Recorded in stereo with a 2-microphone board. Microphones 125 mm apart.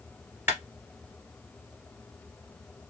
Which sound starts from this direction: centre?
A clap, at 0.5 s.